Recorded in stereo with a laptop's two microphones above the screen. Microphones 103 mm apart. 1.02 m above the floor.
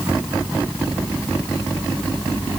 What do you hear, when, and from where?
Only background noise.